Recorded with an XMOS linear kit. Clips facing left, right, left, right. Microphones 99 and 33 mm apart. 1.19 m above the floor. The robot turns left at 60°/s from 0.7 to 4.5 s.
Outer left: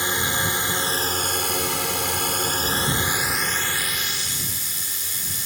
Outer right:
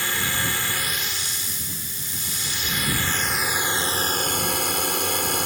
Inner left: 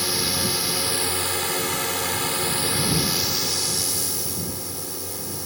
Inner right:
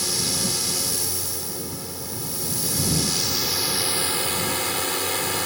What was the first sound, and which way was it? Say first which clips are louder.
A drone: outer left 2 dB, inner left 2 dB; 160° left.